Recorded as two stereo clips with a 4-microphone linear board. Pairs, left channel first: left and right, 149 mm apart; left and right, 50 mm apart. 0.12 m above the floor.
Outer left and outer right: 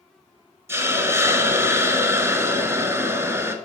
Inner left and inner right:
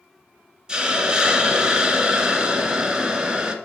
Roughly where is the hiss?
Centre.